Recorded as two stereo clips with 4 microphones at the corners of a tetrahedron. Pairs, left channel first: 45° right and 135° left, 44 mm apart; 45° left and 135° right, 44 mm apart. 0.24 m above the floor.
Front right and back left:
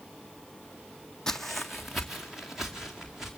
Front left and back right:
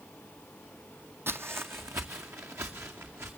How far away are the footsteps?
About 0.7 m.